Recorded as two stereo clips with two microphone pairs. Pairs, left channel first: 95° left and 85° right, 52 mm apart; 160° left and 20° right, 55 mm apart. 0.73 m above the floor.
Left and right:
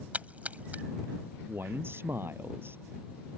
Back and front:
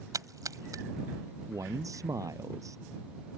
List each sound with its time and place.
0.1 s a splash: 25° right
1.5 s a man speaking: 40° right